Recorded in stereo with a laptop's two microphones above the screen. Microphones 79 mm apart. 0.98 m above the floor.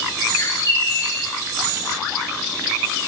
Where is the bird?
45° left (ahead or behind), 1.4 m.